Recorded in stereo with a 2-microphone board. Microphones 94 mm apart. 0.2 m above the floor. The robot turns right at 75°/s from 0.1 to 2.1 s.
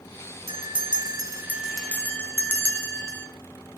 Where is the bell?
95° right, 1.1 m; by 3.3 s 25° left, 1.1 m.